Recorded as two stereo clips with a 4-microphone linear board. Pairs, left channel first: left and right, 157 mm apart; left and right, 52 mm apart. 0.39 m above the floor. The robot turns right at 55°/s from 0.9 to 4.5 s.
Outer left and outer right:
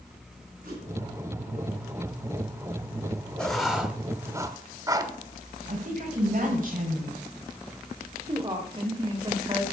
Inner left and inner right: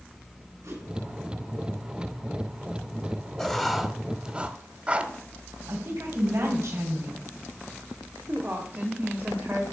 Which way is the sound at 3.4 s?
5° left (ahead or behind).